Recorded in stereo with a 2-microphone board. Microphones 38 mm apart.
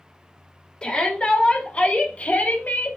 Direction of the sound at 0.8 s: 25° left (ahead or behind).